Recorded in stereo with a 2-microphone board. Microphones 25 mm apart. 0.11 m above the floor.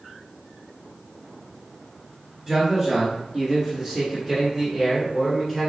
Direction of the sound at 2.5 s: 15° right (ahead or behind).